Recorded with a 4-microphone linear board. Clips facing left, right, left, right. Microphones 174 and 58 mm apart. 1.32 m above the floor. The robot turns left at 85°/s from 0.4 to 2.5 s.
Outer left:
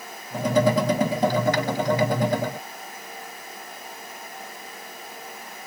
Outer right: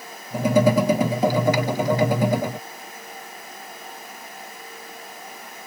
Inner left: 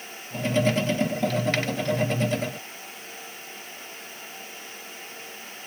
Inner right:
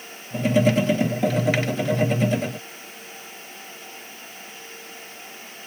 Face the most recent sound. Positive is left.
No sound to turn to.